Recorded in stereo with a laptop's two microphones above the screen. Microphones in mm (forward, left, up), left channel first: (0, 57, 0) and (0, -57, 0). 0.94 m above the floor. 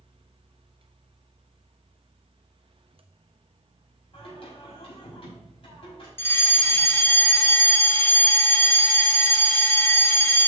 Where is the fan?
55° right (ahead or behind), 0.7 m.